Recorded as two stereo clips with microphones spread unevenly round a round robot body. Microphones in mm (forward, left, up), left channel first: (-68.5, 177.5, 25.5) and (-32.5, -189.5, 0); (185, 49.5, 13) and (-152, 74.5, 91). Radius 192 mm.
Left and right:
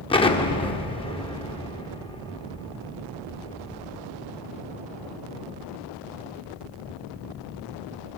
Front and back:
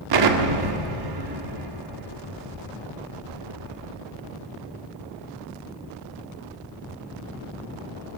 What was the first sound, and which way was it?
An explosion, 175° left.